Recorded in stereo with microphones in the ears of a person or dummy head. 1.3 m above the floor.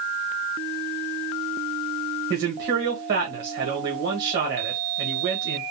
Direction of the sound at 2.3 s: 55° right (ahead or behind).